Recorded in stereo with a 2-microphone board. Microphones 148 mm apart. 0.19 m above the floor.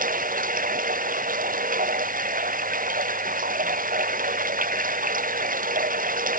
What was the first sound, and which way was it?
Running water, 60° right (ahead or behind).